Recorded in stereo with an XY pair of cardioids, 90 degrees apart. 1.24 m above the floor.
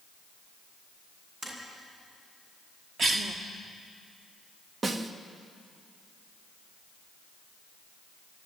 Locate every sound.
1.4 s tapping: 45° right, 8.5 m
3.0 s a cough: 45° right, 2 m
4.8 s a snare drum: 35° right, 1.6 m